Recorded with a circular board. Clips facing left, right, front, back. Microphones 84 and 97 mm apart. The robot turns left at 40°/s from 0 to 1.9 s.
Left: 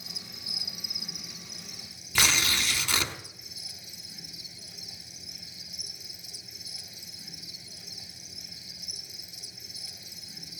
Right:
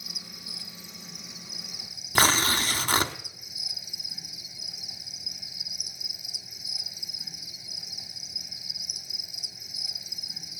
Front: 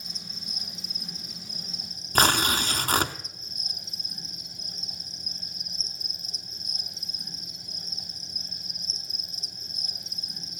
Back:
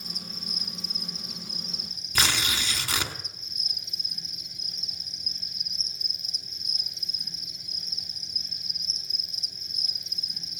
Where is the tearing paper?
45° right, 0.9 m.